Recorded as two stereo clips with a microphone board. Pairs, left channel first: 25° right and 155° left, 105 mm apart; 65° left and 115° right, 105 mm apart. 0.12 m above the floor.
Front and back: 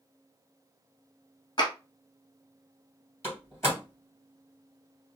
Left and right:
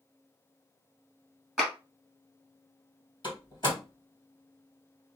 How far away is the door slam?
About 1.8 m.